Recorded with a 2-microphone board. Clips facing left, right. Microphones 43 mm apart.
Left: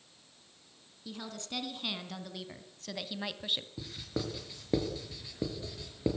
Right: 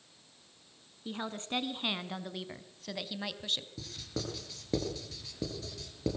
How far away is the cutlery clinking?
No cutlery clinking in this recording.